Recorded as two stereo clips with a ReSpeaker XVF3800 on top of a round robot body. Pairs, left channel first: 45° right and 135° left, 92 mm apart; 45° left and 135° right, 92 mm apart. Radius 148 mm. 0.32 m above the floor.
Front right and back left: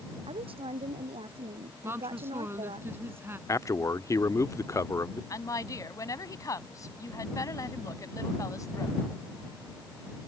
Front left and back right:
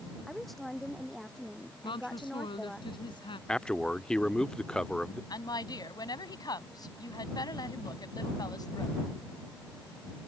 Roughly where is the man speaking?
Ahead right.